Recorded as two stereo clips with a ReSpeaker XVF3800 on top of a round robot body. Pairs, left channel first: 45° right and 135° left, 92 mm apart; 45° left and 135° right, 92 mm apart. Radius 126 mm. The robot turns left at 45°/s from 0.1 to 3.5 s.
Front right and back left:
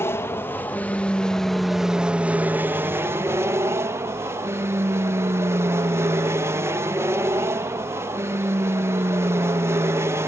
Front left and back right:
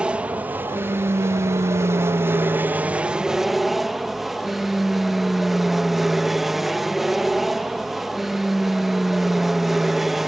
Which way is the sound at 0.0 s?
65° right.